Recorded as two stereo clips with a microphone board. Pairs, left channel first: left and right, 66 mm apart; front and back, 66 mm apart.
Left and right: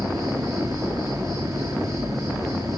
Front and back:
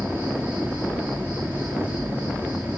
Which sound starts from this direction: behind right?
An insect, at 0.0 s.